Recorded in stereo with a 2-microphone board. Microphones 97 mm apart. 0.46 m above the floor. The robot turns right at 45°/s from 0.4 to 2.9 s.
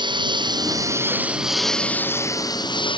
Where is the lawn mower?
55° right; by 3.0 s 60° left.